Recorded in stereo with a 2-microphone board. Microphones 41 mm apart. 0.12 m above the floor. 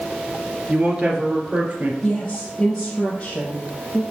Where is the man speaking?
25° right (ahead or behind), 2.5 m; by 1.9 s 40° right (ahead or behind), 2.5 m.